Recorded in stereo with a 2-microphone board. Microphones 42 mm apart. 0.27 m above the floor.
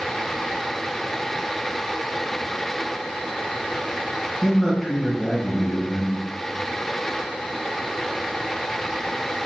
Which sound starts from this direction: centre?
A man speaking, at 4.4 s.